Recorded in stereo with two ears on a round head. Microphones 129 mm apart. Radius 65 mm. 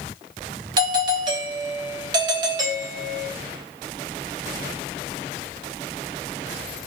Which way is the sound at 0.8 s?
30° right (ahead or behind).